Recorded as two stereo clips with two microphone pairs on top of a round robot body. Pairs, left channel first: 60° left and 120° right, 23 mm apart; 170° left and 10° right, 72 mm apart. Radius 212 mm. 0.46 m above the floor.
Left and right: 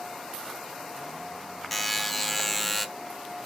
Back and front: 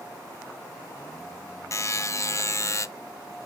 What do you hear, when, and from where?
1.7 s a buzzer: 135° left, 0.6 m